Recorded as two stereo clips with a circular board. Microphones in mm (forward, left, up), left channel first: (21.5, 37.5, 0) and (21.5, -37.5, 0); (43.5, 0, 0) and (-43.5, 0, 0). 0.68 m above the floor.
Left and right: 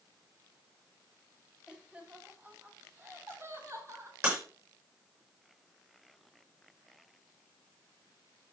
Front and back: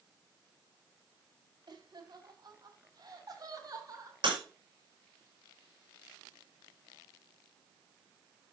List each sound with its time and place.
1.7 s laughter: 165° right, 2 m; by 4.1 s 135° right, 3.5 m
4.2 s breaking glass: 150° right, 7 m